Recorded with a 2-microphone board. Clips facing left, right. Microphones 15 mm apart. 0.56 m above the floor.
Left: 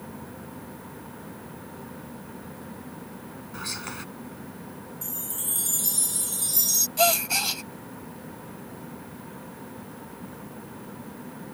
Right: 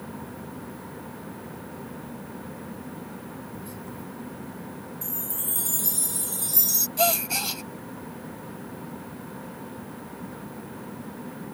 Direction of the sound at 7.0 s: 10° left (ahead or behind).